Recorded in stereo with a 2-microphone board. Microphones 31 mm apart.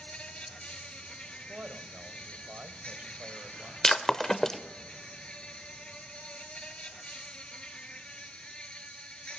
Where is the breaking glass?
15° left (ahead or behind), 0.6 m.